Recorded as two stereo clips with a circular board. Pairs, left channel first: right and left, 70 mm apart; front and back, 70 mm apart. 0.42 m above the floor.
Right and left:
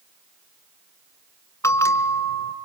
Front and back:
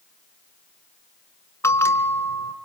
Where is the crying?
No crying in this recording.